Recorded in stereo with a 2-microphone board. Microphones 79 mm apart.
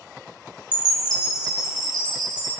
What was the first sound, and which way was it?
A chime, 60° right (ahead or behind).